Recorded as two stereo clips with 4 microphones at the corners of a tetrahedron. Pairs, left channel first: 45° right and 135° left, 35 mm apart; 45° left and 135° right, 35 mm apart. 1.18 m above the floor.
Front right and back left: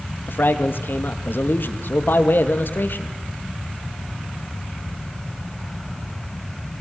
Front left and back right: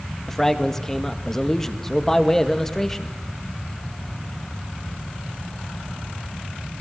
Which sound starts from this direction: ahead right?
A man speaking, at 0.3 s.